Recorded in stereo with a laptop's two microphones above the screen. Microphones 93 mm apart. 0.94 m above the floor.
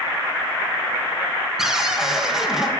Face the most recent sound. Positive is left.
turn(degrees=-5)  # may be behind; listen again after turning